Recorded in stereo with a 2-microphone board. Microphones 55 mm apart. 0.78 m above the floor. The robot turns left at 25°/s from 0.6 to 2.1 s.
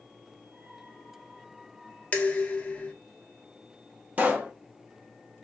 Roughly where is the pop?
Right.